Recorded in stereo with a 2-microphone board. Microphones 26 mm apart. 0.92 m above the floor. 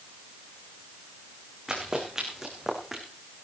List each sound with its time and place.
1.7 s running footsteps: 20° right (ahead or behind), 4.5 m; by 3.0 s 5° right (ahead or behind), 4 m